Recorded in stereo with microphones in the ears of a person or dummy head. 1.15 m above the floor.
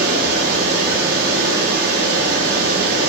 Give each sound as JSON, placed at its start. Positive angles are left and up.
{"t": 0.0, "sound": "running water", "side_deg": -60, "distance_m": 0.9}